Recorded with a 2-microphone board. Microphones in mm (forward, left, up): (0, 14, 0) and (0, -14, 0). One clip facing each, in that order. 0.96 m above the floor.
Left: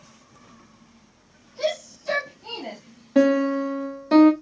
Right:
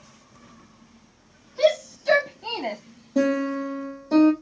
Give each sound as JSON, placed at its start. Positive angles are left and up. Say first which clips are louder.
{"t": 1.6, "sound": "a shout", "louder": "right 6 dB", "side_deg": -60, "distance_m": 1.7}
{"t": 3.1, "sound": "a piano", "louder": "left 4 dB", "side_deg": 80, "distance_m": 1.1}